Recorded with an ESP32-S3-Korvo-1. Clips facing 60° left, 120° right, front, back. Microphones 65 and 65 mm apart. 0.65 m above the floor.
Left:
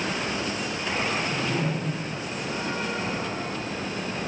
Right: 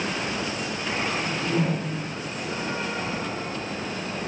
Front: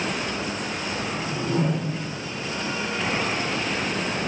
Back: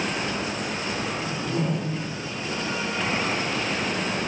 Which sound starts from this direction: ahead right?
A whoosh, at 1.1 s.